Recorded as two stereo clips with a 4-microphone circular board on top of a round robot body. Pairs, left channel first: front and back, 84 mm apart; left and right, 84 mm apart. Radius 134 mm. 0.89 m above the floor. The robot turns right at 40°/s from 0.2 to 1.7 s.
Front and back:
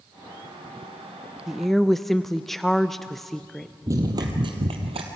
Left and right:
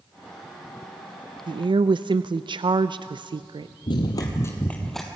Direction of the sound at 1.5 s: 95° right.